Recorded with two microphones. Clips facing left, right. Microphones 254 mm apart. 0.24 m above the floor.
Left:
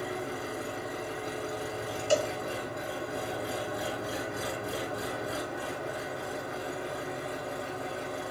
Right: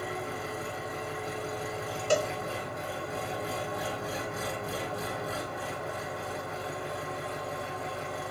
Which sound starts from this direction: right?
A cowbell, at 2.1 s.